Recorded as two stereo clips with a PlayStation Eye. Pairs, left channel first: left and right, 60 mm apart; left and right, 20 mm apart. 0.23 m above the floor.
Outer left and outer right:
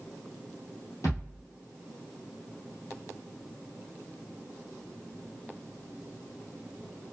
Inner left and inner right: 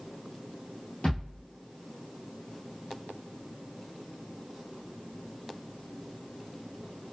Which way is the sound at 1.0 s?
70° left (ahead or behind).